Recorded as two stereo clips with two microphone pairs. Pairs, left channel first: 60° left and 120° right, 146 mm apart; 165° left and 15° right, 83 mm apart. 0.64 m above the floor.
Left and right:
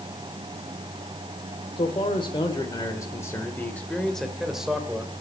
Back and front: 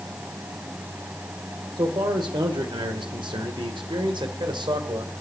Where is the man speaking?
15° left, 2.0 m; by 5.2 s 40° right, 2 m.